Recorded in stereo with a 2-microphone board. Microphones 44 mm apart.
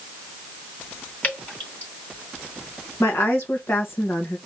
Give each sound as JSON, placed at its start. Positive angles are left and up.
{"t": 1.2, "sound": "dripping", "side_deg": 35, "distance_m": 3.0}
{"t": 3.0, "sound": "a woman speaking", "side_deg": 75, "distance_m": 1.4}